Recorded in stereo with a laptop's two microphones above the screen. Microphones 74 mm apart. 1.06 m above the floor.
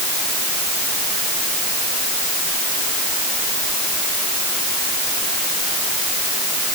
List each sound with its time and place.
Only background noise.